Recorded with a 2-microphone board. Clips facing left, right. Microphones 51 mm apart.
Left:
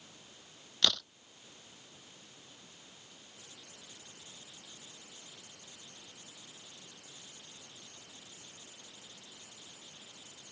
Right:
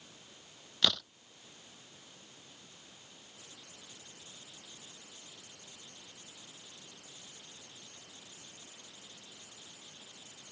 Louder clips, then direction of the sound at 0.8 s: Even; 5° right (ahead or behind).